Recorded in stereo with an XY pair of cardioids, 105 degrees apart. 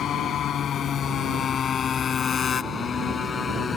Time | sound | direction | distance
0.0 | a motorcycle | 65° left | ?